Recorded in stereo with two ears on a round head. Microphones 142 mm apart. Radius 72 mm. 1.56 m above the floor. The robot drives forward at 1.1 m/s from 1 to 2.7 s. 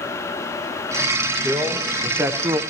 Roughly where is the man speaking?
Centre.